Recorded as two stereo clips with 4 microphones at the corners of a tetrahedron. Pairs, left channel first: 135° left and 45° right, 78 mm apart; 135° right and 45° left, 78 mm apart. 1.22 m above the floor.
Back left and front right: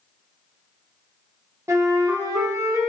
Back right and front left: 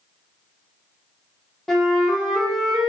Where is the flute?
45° right, 0.5 m.